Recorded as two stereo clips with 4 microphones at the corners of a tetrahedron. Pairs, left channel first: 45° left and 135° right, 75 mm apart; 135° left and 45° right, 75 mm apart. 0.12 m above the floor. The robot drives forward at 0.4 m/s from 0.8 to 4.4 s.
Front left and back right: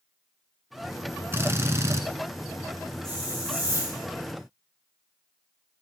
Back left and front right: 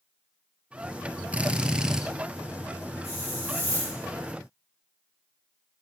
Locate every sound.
1.3 s a drill: 105° right, 1.3 m; by 2.0 s 120° right, 1.3 m
3.0 s a hiss: 170° left, 9 m